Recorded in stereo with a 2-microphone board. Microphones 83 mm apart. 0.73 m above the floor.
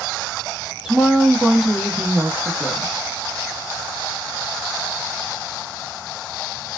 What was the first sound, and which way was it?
A woman speaking, 10° right (ahead or behind).